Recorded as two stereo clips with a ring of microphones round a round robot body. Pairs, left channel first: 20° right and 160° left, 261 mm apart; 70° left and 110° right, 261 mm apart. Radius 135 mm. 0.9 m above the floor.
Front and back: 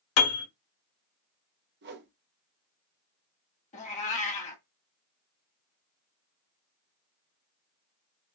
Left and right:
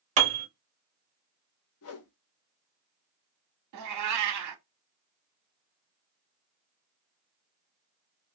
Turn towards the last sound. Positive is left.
turn(degrees=-90)